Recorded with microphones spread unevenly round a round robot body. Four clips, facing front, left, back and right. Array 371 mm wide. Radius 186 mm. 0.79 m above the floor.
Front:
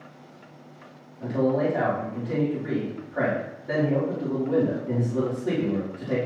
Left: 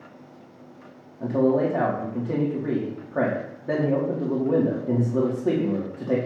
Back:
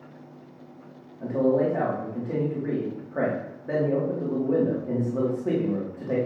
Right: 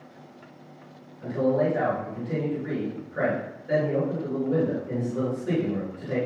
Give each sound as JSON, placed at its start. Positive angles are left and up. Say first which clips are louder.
{"t": 1.2, "sound": "a man speaking", "louder": "left 3 dB, back 1 dB", "azimuth_deg": 90, "distance_m": 2.0}